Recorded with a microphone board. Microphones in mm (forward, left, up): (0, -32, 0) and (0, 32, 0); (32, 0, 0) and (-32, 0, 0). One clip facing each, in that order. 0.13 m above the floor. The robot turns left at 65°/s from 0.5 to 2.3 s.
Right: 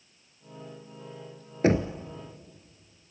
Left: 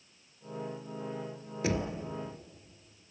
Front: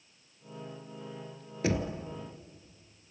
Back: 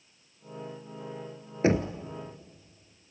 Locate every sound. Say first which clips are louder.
1.6 s knocking: right 8 dB, back 6 dB; 130° right, 1.4 m; by 1.9 s 145° right, 1.4 m